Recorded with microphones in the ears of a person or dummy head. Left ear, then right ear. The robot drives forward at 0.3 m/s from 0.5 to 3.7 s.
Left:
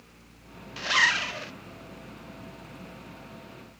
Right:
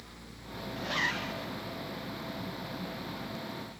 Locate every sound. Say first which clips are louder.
0.8 s a zipper: left 9 dB; 40° left (ahead or behind), 0.8 m; by 1.5 s 45° left (ahead or behind), 0.8 m